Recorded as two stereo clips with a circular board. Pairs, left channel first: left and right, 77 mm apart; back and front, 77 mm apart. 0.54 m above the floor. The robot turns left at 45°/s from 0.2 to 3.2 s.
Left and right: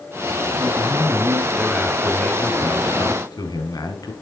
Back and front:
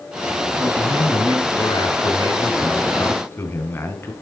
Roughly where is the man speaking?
Behind right.